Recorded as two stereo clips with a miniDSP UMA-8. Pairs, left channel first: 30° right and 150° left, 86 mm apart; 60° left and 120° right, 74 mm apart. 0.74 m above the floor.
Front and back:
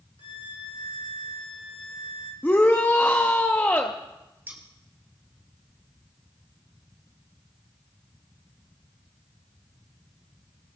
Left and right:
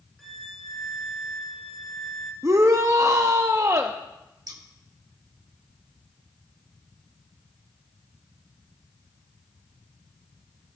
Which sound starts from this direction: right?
A shout, at 2.4 s.